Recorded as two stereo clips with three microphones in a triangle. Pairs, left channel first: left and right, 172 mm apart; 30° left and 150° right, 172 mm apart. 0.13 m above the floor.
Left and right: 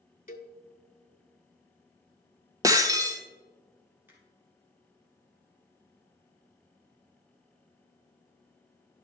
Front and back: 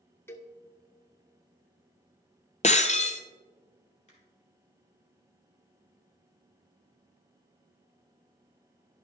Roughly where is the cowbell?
Left.